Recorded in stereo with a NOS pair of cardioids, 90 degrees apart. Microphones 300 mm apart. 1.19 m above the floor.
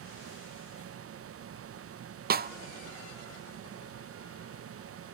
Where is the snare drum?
30° right, 0.6 m.